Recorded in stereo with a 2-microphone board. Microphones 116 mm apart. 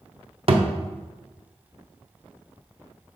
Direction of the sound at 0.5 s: 55° right (ahead or behind).